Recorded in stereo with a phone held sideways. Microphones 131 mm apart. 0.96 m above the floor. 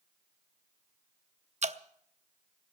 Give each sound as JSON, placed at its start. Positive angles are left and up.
{"t": 1.6, "sound": "dripping", "side_deg": -55, "distance_m": 0.6}